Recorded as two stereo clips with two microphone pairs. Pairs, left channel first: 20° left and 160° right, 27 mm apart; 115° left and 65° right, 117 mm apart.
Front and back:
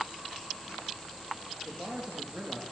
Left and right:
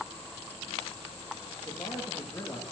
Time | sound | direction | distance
1.6 | a man speaking | 175° left | 1.7 m